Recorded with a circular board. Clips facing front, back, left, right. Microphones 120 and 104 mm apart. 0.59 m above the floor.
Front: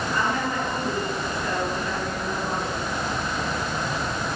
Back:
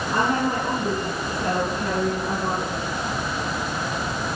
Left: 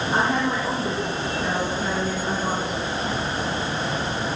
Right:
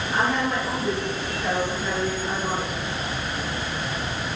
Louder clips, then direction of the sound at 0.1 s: Back 5 dB, left 1 dB; 145° left.